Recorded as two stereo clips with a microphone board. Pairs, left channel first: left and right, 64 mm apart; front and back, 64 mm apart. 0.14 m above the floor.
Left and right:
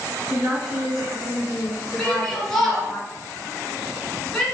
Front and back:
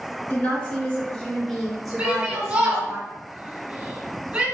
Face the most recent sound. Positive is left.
turn(degrees=165)